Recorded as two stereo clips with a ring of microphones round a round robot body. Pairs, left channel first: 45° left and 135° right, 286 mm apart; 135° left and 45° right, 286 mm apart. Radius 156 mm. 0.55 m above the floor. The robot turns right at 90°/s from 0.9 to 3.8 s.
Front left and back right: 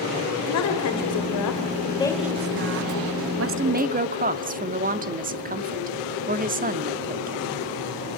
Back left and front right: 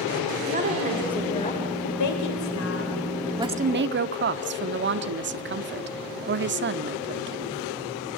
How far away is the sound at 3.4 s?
About 1.1 m.